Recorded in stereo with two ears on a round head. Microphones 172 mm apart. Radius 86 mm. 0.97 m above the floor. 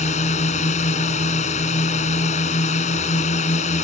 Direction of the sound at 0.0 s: 35° left (ahead or behind).